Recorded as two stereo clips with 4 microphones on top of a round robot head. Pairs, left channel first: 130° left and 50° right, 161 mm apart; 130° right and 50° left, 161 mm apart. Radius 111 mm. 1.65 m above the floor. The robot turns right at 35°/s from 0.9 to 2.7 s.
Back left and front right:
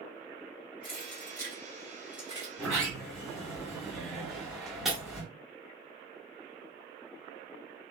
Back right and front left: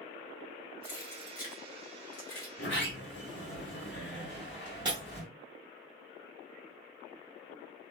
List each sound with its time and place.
0.8 s keys jangling: straight behind, 0.9 m; by 2.5 s 125° right, 0.9 m
2.6 s a sliding door: 150° right, 1.8 m; by 5.3 s 145° right, 1.8 m
4.8 s breaking glass: 40° left, 0.7 m